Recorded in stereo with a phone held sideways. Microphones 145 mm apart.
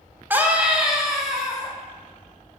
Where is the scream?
15° right (ahead or behind), 0.7 m; by 1.7 s centre (ahead or behind), 1.5 m.